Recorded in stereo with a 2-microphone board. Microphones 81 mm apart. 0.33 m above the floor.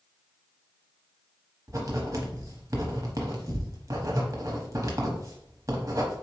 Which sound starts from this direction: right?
Writing, at 1.7 s.